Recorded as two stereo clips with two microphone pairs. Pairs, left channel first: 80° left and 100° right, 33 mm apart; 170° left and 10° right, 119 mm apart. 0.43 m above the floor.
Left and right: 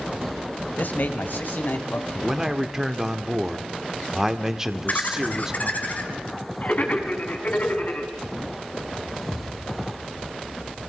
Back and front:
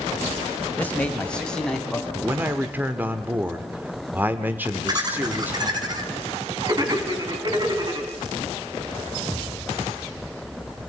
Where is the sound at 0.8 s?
95° left, 1.8 m; by 2.0 s 85° left, 3 m.